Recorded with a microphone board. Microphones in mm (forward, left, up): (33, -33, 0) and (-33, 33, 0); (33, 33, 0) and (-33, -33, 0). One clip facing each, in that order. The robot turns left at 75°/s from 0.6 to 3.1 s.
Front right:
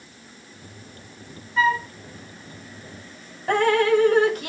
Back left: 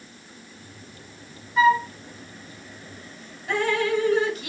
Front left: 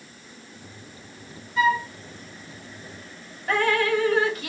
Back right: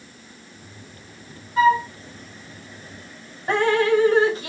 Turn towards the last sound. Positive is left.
turn(degrees=-75)